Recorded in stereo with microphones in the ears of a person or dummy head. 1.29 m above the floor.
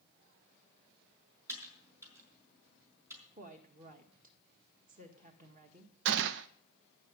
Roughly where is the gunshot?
Right.